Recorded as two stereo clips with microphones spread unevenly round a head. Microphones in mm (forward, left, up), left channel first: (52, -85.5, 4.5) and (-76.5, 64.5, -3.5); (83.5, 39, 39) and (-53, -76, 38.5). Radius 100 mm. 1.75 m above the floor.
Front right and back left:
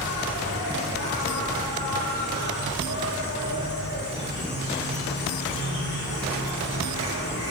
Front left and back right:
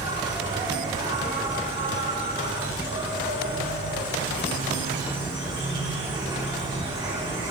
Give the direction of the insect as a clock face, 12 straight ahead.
3 o'clock.